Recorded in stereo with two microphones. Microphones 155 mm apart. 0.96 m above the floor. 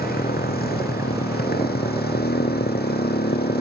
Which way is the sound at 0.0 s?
75° left (ahead or behind).